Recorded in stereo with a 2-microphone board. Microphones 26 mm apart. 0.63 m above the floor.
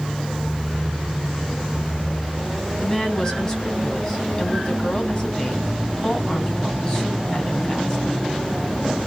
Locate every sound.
2.8 s a woman speaking: 25° left (ahead or behind), 3.5 m